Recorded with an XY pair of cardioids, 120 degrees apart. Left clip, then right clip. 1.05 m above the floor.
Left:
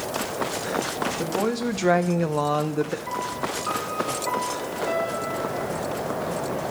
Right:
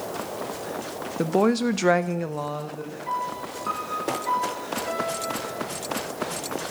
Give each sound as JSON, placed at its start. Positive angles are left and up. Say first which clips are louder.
{"t": 1.2, "sound": "a woman speaking", "louder": "right 8 dB", "azimuth_deg": -45, "distance_m": 1.1}
{"t": 3.1, "sound": "a piano", "louder": "left 1 dB", "azimuth_deg": 0, "distance_m": 3.5}